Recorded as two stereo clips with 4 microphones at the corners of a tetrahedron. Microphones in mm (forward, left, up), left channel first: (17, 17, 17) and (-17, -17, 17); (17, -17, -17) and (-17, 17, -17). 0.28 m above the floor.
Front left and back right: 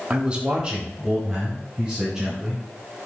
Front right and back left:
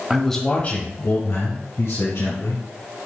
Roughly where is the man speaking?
Behind.